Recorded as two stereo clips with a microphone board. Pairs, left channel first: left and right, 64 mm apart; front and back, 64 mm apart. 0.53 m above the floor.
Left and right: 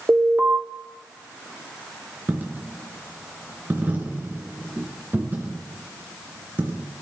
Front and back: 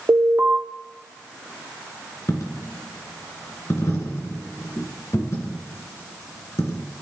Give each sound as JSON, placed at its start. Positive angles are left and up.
{"t": 0.1, "sound": "an alarm", "azimuth_deg": -140, "distance_m": 2.0}
{"t": 2.3, "sound": "a dropped coin", "azimuth_deg": -30, "distance_m": 3.0}